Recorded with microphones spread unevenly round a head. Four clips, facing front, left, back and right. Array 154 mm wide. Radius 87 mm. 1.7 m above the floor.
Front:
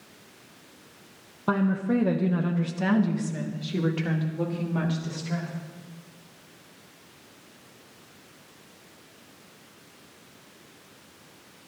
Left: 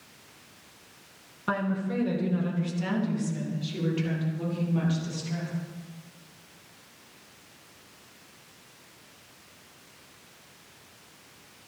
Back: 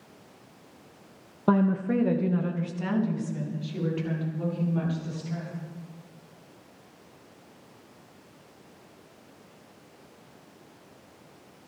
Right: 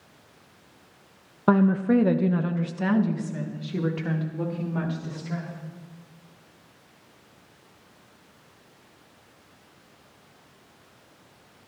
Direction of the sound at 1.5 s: 110° right.